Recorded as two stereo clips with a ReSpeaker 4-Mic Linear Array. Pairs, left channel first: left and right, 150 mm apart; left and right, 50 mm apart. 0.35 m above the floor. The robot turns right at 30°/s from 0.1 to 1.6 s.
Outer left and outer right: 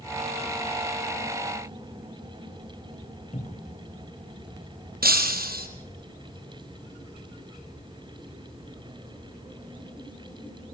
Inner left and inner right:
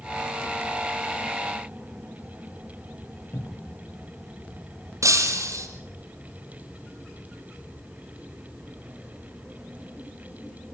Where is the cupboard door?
45° left (ahead or behind), 2.5 m.